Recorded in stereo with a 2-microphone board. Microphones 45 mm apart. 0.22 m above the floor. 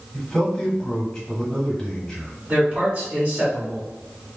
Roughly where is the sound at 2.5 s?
Right.